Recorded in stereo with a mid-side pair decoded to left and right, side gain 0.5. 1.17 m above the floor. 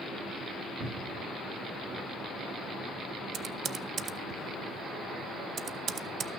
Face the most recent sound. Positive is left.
turn(degrees=-55)